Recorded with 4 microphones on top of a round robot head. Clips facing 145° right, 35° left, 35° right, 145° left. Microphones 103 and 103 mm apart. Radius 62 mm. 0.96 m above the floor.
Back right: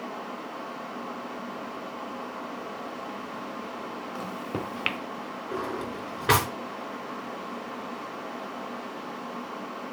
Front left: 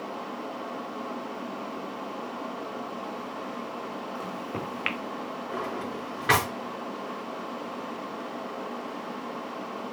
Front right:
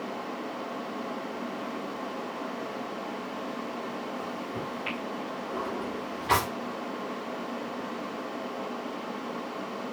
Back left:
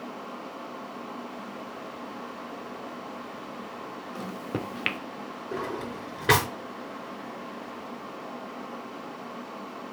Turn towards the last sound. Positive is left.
turn(degrees=145)